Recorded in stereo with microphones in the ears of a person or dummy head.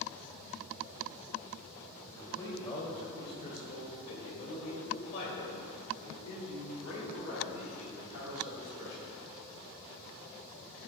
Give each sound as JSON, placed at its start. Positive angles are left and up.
{"t": 2.0, "sound": "a man speaking", "side_deg": 15, "distance_m": 2.5}